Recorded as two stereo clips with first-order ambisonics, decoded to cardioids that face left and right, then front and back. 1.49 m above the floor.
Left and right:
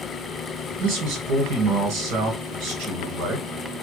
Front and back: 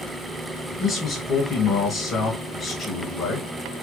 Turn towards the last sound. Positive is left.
turn(degrees=-70)